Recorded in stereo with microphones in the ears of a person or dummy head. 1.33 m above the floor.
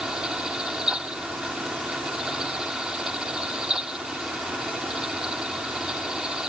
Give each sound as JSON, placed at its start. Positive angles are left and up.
{"t": 0.0, "sound": "a fan", "side_deg": -5}